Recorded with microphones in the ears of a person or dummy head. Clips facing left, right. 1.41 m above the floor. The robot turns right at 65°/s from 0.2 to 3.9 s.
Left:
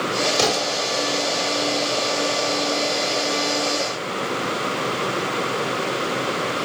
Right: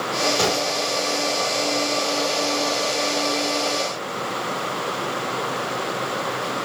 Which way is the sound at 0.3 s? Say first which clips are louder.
Left 1 dB; 20° left (ahead or behind).